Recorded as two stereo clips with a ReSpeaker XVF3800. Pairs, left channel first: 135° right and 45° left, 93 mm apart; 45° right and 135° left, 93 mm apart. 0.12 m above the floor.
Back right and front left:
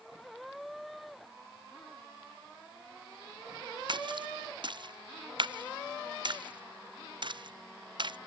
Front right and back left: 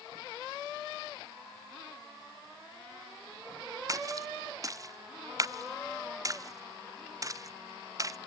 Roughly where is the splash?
Left.